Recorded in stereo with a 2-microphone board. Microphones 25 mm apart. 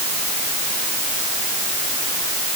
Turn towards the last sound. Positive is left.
No sound to turn to.